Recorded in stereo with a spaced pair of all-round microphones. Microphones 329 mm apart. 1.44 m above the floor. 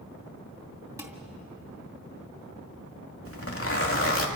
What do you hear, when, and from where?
1.0 s dishes clattering: 10° right (ahead or behind), 2.5 m
3.2 s a zipper: 40° left (ahead or behind), 2 m